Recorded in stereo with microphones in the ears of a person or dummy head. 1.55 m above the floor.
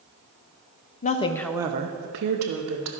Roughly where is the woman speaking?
Left.